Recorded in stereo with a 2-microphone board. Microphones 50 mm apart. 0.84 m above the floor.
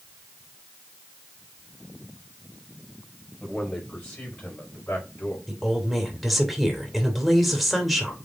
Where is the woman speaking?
Centre (ahead or behind), 2.5 m.